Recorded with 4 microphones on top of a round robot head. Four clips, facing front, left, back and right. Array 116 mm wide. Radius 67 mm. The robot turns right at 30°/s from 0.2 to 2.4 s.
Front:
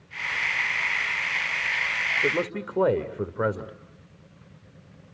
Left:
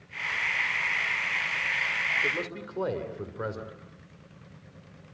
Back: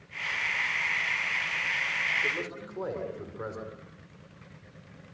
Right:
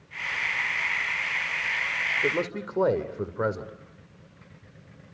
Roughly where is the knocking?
I don't hear knocking.